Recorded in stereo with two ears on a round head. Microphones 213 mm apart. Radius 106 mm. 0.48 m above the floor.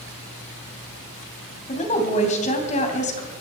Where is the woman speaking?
30° left (ahead or behind), 3 m.